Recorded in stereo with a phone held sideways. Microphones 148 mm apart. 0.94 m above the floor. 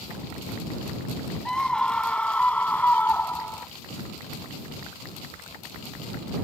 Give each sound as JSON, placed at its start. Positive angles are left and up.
{"t": 1.4, "sound": "a scream", "side_deg": 5}